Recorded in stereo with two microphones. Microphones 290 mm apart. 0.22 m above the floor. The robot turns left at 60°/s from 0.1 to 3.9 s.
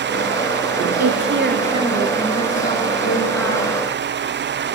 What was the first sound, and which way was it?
A woman speaking, 115° right.